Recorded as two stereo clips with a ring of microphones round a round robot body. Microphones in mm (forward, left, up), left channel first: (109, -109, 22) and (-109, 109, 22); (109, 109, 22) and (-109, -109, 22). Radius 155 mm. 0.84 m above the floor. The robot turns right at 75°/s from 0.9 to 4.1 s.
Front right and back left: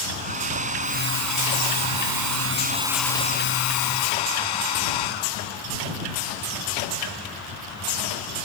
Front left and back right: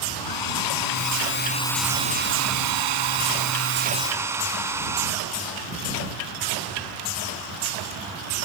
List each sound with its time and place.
0.2 s a hair dryer: 65° left; by 5.7 s 55° right